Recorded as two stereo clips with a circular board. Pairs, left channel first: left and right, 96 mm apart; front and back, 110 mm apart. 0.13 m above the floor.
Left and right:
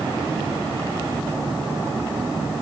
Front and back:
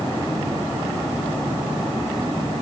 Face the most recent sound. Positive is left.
No sound to turn to.